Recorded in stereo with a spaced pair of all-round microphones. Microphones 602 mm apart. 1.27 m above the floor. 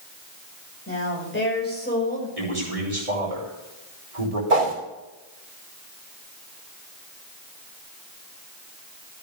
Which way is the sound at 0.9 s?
20° left (ahead or behind).